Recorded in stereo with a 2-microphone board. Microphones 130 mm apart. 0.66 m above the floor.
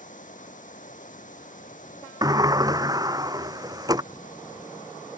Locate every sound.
0.0 s running water: 75° left (ahead or behind)
2.2 s a sliding door: 30° right (ahead or behind)